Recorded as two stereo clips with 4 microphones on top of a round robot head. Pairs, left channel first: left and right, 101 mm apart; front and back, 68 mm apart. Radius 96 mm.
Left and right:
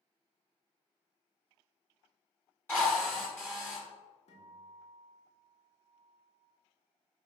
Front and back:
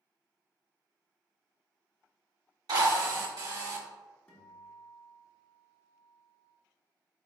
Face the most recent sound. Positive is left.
turn(degrees=70)